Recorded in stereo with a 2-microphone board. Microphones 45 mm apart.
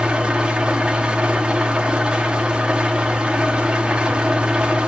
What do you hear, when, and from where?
0.0 s an engine running: 25° right (ahead or behind), 1.0 m